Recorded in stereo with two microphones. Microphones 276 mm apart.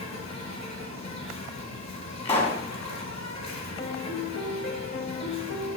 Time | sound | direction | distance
0.0 | an insect | 75° left (ahead or behind) | 2.5 m
2.2 | a pop | 25° left (ahead or behind) | 2.5 m
3.8 | a piano | 40° left (ahead or behind) | 1.0 m